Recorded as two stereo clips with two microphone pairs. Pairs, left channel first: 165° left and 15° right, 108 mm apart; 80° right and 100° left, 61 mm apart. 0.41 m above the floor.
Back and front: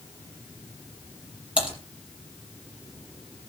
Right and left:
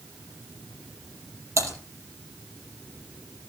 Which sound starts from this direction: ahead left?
Typing on a keyboard, at 1.6 s.